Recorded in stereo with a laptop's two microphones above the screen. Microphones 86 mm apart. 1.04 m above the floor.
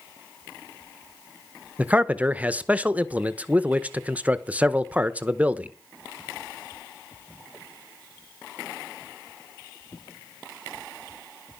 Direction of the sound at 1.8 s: 15° right (ahead or behind).